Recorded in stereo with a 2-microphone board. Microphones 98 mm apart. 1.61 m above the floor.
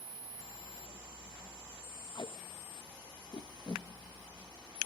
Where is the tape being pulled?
50° left (ahead or behind), 1.2 m.